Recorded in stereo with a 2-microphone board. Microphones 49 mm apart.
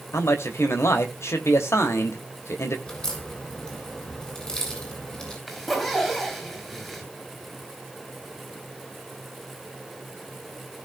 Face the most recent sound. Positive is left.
turn(degrees=5)  # may be behind; listen again after turning